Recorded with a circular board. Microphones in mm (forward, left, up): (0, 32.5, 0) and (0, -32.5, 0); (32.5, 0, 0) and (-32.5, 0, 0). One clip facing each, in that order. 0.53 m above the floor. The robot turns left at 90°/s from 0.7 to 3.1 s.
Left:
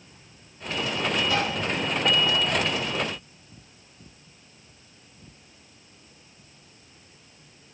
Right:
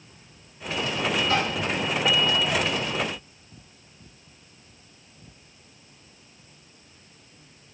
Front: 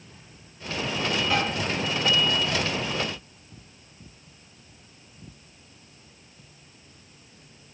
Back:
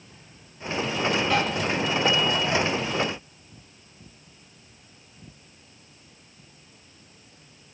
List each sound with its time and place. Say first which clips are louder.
1.3 s tapping: right 1 dB, front 1 dB; 95° right, 4.5 m; by 1.5 s 115° right, 4.5 m